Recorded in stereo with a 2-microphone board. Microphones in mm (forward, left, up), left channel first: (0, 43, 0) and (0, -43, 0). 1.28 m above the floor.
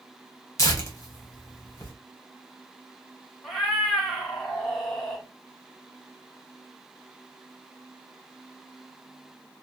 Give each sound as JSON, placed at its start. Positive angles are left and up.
{"t": 0.6, "sound": "tearing paper", "side_deg": 40, "distance_m": 0.8}
{"t": 3.4, "sound": "a cat meowing", "side_deg": 5, "distance_m": 0.8}